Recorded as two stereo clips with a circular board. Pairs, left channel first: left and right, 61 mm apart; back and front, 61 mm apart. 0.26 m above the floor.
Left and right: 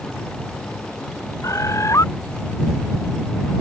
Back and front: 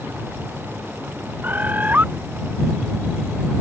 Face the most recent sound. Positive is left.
turn(degrees=60)